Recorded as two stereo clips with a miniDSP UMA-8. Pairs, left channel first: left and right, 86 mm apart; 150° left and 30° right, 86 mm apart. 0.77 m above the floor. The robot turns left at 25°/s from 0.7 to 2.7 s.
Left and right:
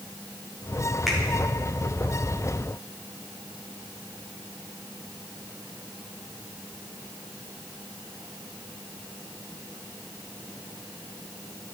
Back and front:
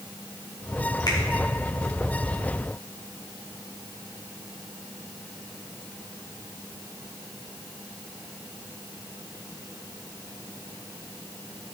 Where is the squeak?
No squeak in this recording.